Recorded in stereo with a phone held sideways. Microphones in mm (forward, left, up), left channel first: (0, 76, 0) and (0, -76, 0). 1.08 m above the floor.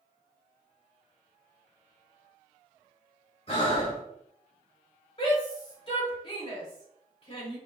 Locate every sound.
3.5 s breathing: 40° left (ahead or behind), 1.9 m
5.2 s a shout: 40° left (ahead or behind), 2.5 m